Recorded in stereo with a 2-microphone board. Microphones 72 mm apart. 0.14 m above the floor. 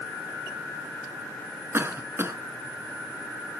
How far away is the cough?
About 1.5 m.